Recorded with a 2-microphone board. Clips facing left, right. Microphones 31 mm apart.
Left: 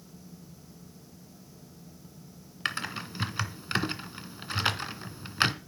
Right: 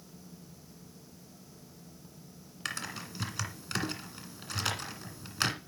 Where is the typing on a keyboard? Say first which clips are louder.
Left 5 dB; 30° left (ahead or behind), 1.9 m.